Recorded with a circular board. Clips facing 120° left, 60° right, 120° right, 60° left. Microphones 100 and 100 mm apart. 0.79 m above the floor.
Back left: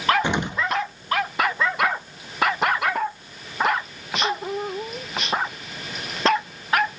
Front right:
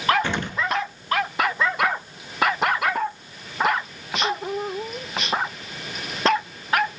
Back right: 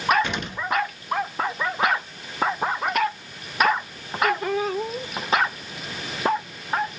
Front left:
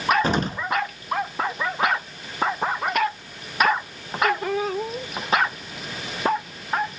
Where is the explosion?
60° left, 0.8 m.